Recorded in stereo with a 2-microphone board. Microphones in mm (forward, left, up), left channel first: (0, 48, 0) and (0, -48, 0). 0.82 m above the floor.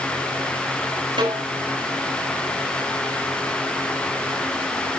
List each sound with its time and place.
1.2 s a snare drum: 65° right (ahead or behind), 7 m